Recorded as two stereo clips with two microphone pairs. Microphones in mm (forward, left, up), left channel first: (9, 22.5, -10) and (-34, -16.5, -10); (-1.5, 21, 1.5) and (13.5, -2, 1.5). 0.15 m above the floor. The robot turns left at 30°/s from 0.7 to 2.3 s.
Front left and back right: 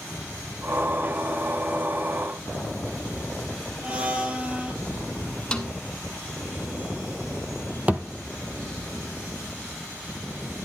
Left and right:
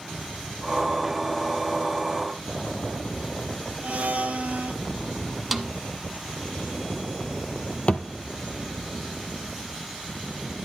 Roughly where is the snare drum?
Ahead.